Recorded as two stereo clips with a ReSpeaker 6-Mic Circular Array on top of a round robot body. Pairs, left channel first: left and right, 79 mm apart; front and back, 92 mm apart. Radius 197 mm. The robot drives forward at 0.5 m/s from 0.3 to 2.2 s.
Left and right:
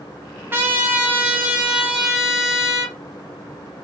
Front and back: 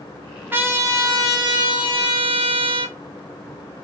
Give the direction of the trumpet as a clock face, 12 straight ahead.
4 o'clock.